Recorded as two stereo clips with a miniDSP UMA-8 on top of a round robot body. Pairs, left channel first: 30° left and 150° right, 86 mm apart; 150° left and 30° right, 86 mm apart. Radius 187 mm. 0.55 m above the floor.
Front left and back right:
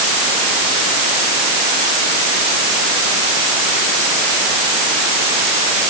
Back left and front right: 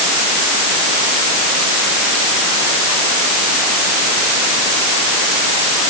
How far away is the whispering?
I don't hear whispering.